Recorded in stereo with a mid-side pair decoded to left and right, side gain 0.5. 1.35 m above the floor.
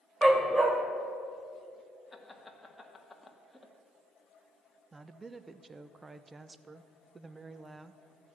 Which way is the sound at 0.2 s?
20° right.